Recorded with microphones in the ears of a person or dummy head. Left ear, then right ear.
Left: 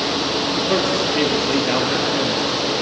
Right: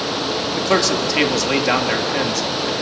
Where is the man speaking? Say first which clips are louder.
Right 4 dB; 60° right (ahead or behind), 2.5 m.